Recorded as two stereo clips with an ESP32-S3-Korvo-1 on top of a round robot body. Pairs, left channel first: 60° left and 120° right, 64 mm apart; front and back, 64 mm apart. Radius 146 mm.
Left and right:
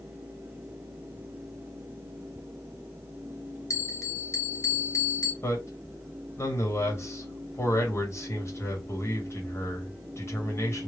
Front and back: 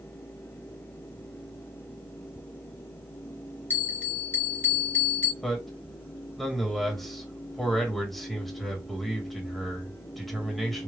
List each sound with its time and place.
3.7 s a bell: 55° left, 1.1 m
5.4 s a man speaking: 85° left, 1.6 m